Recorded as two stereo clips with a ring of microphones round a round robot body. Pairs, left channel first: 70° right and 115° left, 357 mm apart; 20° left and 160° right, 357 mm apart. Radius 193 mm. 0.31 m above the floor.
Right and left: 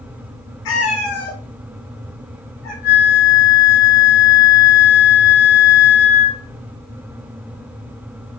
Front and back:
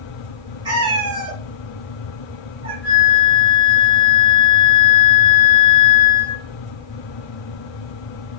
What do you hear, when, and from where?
0.7 s a cat meowing: 80° right, 3 m
2.8 s a flute: 90° right, 6 m